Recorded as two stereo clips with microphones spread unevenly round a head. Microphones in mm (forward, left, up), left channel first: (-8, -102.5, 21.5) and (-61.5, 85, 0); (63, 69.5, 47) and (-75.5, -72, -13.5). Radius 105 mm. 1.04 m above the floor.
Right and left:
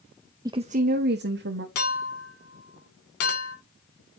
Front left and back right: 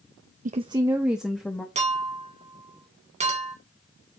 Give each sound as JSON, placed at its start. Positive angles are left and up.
{"t": 0.5, "sound": "a woman speaking", "azimuth_deg": 180, "distance_m": 0.5}
{"t": 1.8, "sound": "a clink", "azimuth_deg": -75, "distance_m": 3.0}